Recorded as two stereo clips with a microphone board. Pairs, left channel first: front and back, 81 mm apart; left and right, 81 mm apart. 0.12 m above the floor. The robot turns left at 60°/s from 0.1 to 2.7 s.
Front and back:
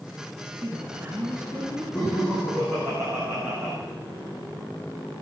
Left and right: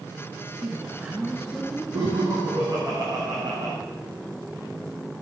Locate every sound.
0.6 s a woman speaking: 125° right, 1.8 m; by 1.8 s 155° left, 1.8 m
1.9 s laughter: 75° right, 7 m; by 3.7 s 120° right, 7 m